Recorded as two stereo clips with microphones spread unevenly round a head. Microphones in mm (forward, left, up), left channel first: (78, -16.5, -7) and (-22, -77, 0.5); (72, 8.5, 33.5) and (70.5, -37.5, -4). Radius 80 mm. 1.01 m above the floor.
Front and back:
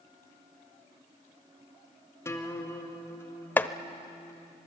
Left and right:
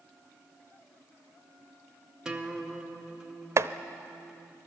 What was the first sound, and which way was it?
A guitar, 35° right.